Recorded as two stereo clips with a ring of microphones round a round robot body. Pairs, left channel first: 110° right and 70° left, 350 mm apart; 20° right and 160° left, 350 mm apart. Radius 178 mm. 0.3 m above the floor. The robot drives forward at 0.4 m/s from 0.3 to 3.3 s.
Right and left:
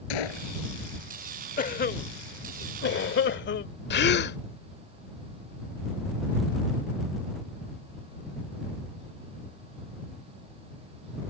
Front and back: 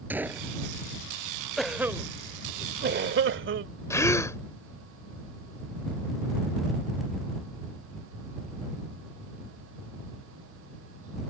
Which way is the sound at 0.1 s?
120° right.